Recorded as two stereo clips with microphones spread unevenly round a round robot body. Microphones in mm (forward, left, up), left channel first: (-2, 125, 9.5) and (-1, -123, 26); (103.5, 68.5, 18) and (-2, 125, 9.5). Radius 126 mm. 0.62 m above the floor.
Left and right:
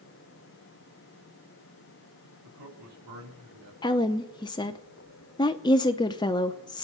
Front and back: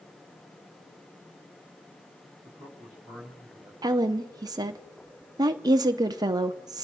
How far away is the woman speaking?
About 0.7 m.